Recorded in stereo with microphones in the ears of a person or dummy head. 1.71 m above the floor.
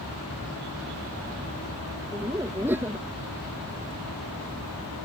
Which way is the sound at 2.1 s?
15° right (ahead or behind).